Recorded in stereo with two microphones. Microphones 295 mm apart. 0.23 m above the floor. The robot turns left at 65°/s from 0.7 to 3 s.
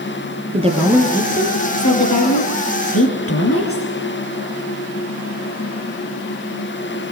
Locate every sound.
0.5 s a woman speaking: 160° right, 5 m; by 3.9 s 50° left, 5 m